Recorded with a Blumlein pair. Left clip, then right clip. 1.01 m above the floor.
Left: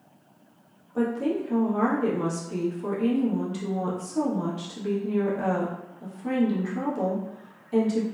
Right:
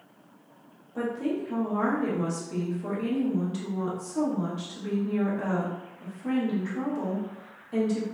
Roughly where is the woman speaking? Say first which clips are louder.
Left 3 dB; ahead.